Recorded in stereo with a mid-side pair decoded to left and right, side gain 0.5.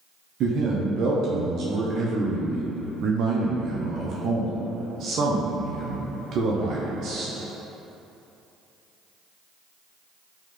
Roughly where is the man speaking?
Ahead right.